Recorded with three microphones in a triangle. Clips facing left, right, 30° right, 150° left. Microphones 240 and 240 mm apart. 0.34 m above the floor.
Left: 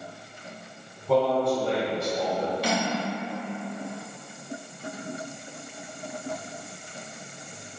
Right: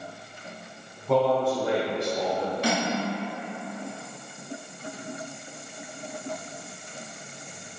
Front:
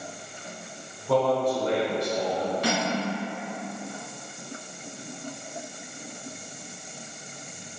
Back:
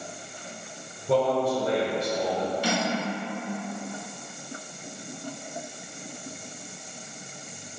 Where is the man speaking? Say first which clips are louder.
Even, even; 175° left, 1.1 m; by 2.5 s 45° right, 1.1 m.